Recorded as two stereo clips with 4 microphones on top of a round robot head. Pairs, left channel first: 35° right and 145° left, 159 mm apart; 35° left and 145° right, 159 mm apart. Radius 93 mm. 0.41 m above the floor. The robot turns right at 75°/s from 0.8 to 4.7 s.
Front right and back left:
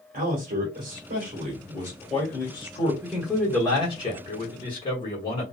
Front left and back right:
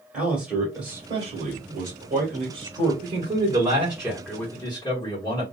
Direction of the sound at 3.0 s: 135° right.